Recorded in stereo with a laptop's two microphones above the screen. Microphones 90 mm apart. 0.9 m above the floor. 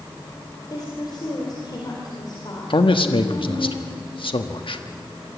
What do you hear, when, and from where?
0.7 s a woman speaking: 50° left (ahead or behind), 4 m
2.7 s a man speaking: 70° left (ahead or behind), 1.4 m